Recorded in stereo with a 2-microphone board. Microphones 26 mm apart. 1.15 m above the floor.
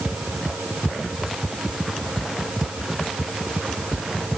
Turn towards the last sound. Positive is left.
No sound to turn to.